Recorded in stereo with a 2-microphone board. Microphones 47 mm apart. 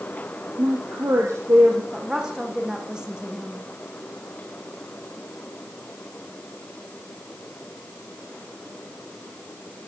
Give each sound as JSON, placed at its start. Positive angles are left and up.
{"t": 0.6, "sound": "a woman speaking", "side_deg": -70, "distance_m": 4.0}
{"t": 1.9, "sound": "a woman speaking", "side_deg": -15, "distance_m": 7.0}